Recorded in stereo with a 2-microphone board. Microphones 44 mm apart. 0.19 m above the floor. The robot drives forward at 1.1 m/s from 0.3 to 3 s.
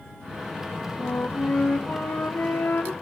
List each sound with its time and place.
1.0 s a flute: 50° left (ahead or behind), 3.5 m; by 2.9 s 75° left (ahead or behind), 2.5 m